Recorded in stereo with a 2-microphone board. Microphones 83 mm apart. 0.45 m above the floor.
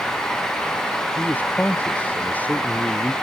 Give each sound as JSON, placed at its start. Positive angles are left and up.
{"t": 1.2, "sound": "a man speaking", "side_deg": 20}